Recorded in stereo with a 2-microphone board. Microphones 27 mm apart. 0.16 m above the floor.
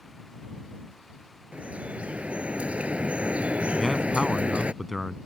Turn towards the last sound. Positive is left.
turn(degrees=0)  # may be behind; listen again after turning